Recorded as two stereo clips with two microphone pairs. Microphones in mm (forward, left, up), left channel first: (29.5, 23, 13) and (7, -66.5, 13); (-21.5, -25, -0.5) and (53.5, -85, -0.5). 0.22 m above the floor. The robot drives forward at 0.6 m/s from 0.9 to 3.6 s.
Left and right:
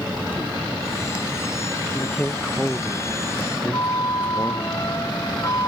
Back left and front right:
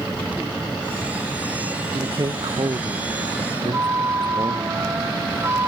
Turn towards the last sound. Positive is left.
turn(degrees=25)